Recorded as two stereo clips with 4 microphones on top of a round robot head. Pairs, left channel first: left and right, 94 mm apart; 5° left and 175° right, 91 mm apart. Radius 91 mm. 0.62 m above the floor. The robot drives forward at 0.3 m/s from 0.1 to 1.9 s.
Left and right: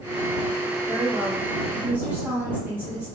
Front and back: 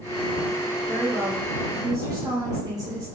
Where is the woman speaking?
115° right, 0.5 m; by 3.1 s 155° right, 0.7 m.